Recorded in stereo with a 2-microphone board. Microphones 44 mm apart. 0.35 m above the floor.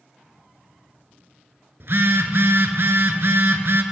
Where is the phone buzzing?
70° right (ahead or behind), 0.7 m.